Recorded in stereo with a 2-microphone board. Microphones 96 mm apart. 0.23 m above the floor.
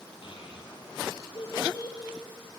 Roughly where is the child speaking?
Left.